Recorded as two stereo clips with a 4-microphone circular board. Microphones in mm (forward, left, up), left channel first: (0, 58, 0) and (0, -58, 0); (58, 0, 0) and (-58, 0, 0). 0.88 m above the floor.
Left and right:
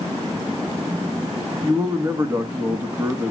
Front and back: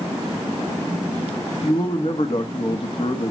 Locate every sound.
1.6 s a man speaking: 25° right, 1.4 m